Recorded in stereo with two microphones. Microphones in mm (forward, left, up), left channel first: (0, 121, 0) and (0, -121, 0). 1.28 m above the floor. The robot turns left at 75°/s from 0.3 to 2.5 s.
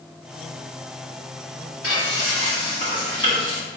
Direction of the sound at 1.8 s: 70° left.